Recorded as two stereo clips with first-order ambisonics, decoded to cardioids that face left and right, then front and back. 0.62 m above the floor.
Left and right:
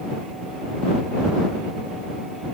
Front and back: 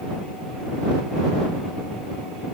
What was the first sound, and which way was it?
Only background noise.